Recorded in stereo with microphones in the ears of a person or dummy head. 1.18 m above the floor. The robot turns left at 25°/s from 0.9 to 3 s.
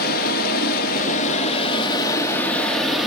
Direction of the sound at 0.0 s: 50° left.